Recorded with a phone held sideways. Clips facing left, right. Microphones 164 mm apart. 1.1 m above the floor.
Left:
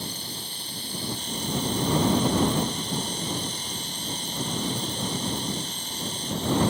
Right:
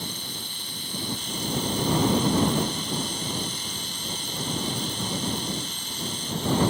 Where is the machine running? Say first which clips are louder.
Even; 35° left (ahead or behind).